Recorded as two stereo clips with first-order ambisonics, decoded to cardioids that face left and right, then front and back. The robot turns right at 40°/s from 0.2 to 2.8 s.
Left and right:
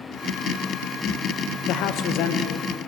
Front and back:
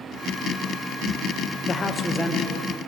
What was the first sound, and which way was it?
A man speaking, 65° left.